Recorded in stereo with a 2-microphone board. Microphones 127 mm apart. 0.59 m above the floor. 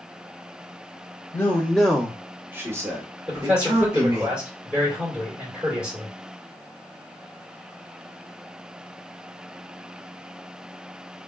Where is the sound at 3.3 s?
5° right (ahead or behind), 2.5 m.